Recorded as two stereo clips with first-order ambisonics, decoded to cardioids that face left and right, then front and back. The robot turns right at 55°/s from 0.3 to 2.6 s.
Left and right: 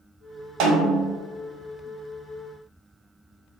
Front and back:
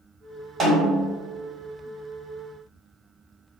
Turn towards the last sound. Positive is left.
turn(degrees=-5)